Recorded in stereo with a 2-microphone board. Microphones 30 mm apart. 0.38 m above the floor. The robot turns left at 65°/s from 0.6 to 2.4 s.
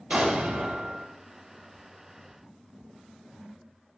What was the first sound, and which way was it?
An explosion, 40° right (ahead or behind).